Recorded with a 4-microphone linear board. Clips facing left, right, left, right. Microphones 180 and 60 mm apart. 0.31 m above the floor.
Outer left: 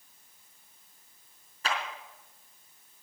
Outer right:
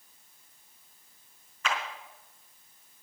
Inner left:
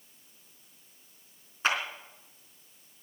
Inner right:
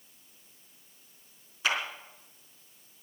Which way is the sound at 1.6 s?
35° left (ahead or behind).